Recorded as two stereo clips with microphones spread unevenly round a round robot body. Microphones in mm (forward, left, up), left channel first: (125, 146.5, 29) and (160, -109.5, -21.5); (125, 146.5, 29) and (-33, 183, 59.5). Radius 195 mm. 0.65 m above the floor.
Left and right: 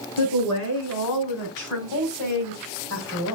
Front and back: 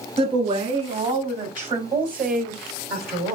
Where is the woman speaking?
120° left, 5 m; by 3.4 s 145° left, 4 m.